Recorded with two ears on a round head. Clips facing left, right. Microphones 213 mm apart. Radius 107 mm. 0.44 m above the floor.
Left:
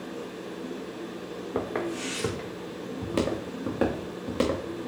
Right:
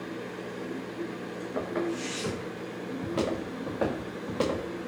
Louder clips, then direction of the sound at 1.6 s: Even; 65° left (ahead or behind).